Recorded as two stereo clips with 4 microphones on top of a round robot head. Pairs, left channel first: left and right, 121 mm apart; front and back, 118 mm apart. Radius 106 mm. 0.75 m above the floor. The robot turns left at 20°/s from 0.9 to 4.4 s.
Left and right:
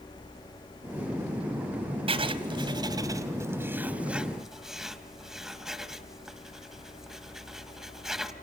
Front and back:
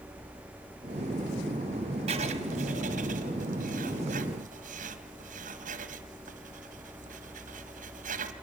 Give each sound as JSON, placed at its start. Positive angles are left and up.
{"t": 2.1, "sound": "writing", "azimuth_deg": -130, "distance_m": 1.9}